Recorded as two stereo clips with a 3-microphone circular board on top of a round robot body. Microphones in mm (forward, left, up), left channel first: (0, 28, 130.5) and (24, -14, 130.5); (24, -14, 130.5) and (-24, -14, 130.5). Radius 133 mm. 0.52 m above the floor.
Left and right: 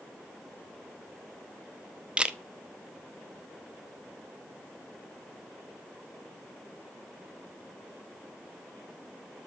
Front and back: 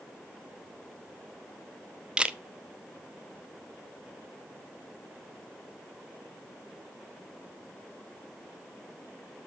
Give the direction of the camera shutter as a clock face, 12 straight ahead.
4 o'clock.